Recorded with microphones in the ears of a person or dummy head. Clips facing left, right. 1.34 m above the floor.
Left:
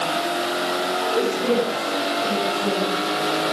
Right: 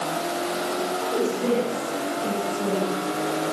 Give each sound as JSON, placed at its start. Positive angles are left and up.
{"t": 1.0, "sound": "a woman speaking", "side_deg": -10, "distance_m": 10.0}